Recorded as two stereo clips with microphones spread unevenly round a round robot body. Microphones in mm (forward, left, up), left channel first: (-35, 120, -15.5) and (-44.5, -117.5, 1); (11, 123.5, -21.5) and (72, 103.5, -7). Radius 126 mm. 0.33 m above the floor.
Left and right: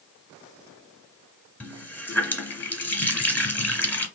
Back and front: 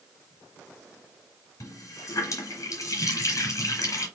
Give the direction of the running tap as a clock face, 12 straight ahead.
6 o'clock.